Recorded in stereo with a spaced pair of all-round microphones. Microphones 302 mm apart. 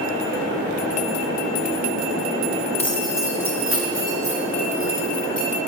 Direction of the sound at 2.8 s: 20° left (ahead or behind).